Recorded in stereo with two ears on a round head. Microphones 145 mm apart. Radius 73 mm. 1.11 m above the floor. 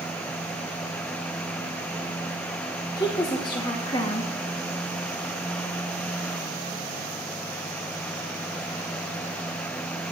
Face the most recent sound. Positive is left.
turn(degrees=25)  # may be behind; listen again after turning